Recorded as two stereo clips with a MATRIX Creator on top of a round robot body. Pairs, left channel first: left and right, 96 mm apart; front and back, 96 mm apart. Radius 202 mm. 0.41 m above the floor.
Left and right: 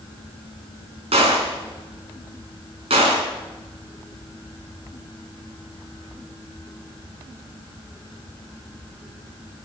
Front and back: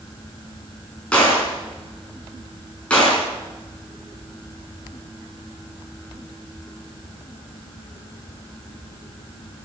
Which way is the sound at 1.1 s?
80° right.